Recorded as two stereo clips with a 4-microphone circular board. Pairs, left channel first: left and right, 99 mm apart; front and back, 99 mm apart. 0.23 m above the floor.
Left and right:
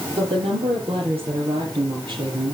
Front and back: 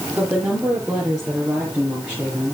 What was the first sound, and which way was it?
A woman speaking, 90° right.